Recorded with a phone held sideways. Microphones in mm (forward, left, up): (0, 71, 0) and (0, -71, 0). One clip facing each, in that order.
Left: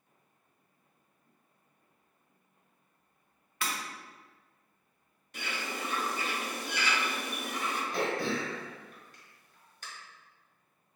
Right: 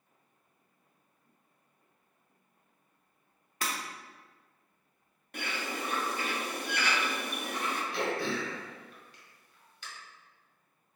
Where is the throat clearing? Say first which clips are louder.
Left 2 dB; 45° left (ahead or behind), 1.0 m.